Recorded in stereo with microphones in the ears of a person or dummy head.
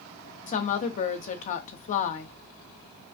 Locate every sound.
0.5 s a woman speaking: 35° left (ahead or behind), 0.8 m